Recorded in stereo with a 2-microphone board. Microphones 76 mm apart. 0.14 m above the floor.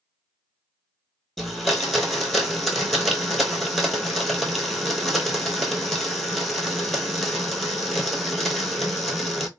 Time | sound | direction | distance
1.4 | a blender | centre (ahead or behind) | 0.6 m